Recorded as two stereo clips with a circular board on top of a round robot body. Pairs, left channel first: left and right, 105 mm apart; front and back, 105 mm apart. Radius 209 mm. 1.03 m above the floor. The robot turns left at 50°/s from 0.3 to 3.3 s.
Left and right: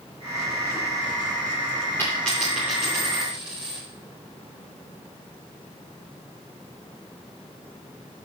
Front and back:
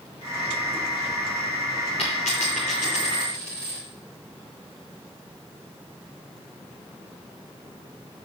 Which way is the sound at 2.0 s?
20° left.